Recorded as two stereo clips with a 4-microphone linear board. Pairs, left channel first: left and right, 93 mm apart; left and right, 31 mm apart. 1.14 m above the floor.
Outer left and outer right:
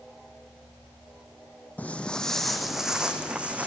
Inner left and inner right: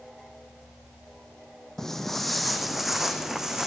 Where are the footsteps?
15° left (ahead or behind), 2 m; by 3.7 s 15° right (ahead or behind), 3 m.